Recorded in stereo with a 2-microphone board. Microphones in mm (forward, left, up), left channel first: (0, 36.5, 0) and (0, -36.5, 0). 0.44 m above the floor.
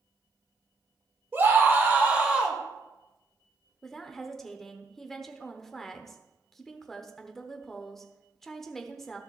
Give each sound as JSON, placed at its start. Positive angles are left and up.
{"t": 1.3, "sound": "a scream", "side_deg": -30, "distance_m": 1.6}
{"t": 3.8, "sound": "a woman speaking", "side_deg": 5, "distance_m": 0.9}